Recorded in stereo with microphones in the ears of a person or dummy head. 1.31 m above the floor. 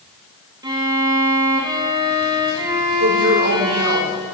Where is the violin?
25° right (ahead or behind), 1.1 m.